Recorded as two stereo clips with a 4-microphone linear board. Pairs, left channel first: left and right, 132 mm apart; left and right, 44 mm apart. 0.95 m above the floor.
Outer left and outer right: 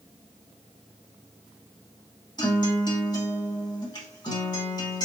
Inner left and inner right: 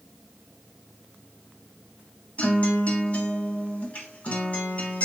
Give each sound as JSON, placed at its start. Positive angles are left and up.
{"t": 2.4, "sound": "a guitar", "side_deg": 35, "distance_m": 2.5}